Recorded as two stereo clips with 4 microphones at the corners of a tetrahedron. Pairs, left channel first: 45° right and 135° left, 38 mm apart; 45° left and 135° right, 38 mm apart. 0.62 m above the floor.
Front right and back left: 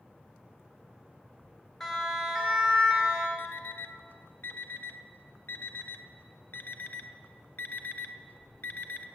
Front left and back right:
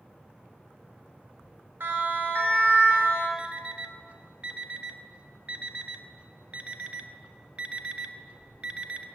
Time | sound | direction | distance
1.8 | a siren | 130° right | 2.5 m
3.4 | an alarm clock | 75° right | 0.7 m